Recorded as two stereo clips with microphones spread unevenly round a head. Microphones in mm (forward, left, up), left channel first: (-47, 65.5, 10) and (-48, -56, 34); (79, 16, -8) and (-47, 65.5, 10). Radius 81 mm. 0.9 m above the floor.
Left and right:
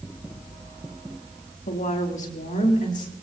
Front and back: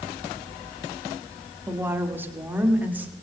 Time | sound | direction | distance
1.7 | a woman speaking | 85° left | 2.5 m